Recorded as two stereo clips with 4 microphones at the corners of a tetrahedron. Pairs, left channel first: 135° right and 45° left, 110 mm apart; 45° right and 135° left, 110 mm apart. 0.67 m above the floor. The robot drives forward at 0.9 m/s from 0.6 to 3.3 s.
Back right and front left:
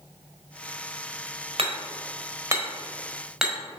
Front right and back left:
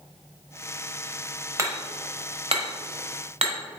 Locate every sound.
1.6 s hammering: 75° left, 1.4 m; by 3.8 s 130° left, 1.7 m